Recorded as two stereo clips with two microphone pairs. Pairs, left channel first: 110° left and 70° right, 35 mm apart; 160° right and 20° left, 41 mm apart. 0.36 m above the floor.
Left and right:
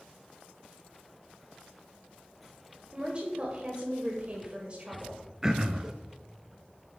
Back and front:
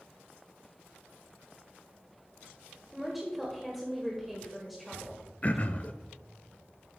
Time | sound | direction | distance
2.9 | a woman speaking | 65° right | 1.5 m
5.4 | throat clearing | 130° right | 0.6 m